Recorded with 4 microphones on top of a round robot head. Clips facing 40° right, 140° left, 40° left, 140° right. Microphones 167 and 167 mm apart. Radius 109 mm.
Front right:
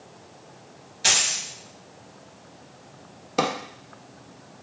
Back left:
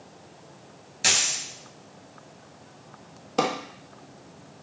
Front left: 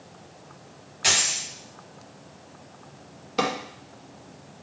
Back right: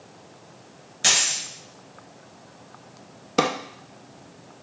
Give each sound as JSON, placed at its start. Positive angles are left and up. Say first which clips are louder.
{"t": 1.0, "sound": "a dropped coin", "louder": "front right 1 dB, even", "azimuth_deg": 180, "distance_m": 2.0}
{"t": 3.4, "sound": "a drawer", "louder": "even, back right 4 dB", "azimuth_deg": -125, "distance_m": 0.5}